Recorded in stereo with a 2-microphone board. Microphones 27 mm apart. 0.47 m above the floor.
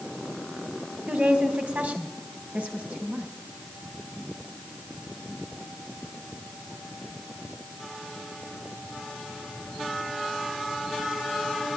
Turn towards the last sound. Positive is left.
turn(degrees=-75)  # may be behind; listen again after turning